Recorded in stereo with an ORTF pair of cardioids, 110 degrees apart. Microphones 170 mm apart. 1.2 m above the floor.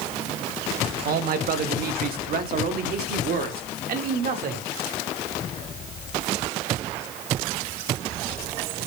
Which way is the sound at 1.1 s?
60° right.